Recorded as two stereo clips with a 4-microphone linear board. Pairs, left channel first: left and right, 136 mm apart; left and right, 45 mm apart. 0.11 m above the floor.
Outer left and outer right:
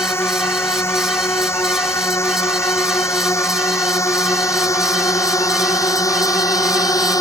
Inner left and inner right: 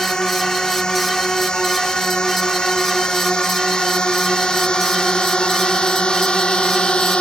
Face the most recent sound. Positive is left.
turn(degrees=25)  # may be behind; listen again after turning